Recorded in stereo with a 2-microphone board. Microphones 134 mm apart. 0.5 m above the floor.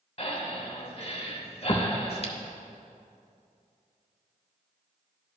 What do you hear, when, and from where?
0.2 s breathing: 45° left (ahead or behind), 0.8 m